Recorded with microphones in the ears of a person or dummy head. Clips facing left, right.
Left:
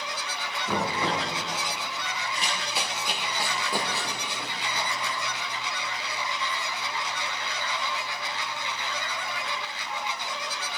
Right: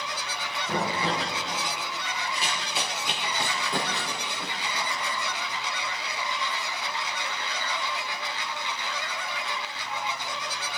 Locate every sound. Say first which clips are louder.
0.7 s knocking: even; 85° left, 4.5 m
2.4 s running footsteps: even; 10° right (ahead or behind), 2.5 m; by 5.4 s 10° left (ahead or behind), 3.5 m